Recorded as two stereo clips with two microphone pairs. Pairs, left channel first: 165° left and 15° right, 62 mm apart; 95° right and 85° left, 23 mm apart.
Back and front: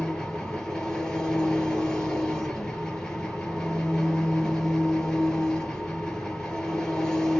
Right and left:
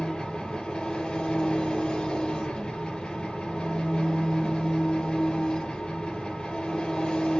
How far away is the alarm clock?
No alarm clock in this recording.